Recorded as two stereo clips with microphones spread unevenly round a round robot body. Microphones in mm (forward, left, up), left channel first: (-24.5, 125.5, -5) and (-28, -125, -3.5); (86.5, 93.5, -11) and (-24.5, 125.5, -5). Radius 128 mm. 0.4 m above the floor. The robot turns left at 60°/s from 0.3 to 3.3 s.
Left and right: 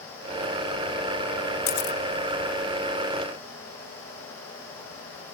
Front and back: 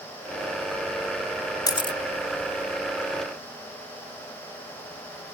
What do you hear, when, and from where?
1.7 s a camera shutter: 45° left, 0.6 m; by 2.0 s 25° left, 0.6 m